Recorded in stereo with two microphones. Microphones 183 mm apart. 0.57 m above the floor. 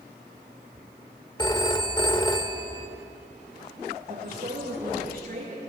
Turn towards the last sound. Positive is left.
turn(degrees=-55)  # may be behind; listen again after turning